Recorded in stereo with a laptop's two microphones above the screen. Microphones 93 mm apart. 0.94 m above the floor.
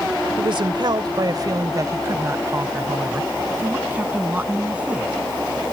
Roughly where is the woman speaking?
Right.